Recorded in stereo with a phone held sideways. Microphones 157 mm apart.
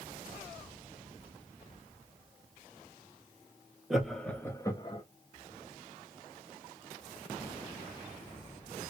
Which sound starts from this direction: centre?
Laughter, at 3.9 s.